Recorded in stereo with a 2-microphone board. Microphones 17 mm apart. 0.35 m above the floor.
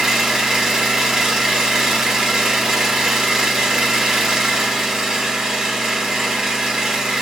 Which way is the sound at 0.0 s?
45° right (ahead or behind).